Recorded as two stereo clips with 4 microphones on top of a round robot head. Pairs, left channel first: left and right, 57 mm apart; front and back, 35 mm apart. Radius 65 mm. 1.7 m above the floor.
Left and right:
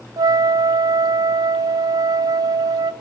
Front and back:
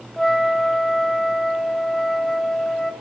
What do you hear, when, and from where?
0.2 s a flute: 80° right, 0.7 m